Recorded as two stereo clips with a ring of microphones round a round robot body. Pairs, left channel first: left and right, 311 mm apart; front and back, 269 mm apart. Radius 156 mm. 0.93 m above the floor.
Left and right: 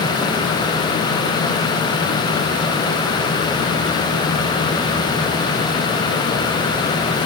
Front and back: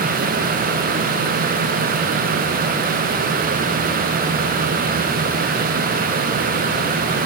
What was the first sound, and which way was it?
Only background noise.